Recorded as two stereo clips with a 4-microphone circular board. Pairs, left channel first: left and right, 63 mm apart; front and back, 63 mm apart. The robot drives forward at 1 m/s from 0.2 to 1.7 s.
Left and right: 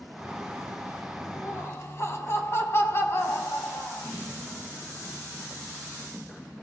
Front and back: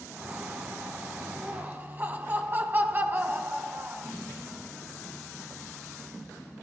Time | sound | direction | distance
1.4 | laughter | 115° left | 1.7 m